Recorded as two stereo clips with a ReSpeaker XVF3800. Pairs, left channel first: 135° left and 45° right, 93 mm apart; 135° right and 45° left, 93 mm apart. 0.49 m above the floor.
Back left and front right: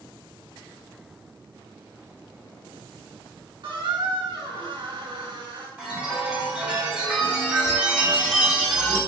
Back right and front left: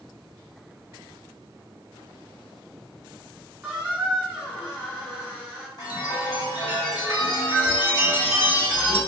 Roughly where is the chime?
Behind right.